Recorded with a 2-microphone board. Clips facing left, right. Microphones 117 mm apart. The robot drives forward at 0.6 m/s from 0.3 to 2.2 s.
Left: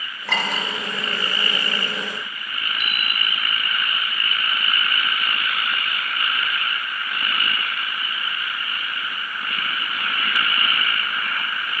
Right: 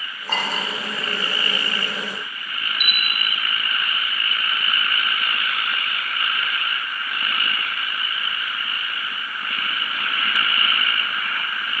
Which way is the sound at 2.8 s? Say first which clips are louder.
Even; 30° left (ahead or behind).